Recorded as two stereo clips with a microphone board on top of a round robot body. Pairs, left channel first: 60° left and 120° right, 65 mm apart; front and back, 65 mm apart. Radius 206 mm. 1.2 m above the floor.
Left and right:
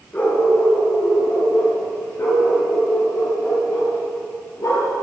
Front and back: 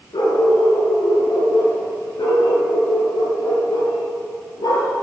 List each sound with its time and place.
0.1 s a dog barking: 10° right, 6 m; by 4.9 s 15° left, 10 m